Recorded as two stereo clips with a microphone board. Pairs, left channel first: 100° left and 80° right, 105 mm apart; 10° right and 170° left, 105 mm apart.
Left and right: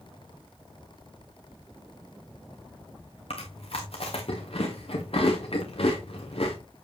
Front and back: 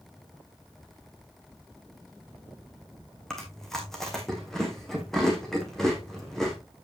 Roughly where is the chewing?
Left.